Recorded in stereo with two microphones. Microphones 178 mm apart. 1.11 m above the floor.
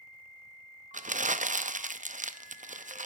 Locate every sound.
0.9 s crumpling: 45° right (ahead or behind), 0.5 m